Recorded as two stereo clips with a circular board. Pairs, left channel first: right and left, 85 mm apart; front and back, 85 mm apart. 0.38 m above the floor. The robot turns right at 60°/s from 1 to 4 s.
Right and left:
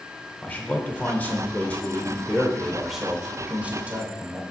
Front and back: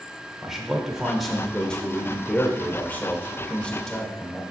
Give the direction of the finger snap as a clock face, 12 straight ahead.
No finger snap in this recording.